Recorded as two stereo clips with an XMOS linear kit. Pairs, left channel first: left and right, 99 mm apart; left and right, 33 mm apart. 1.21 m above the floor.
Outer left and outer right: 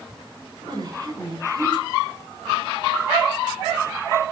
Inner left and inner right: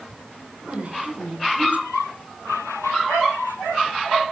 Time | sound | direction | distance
0.6 | a woman speaking | 50° right (ahead or behind) | 4.5 m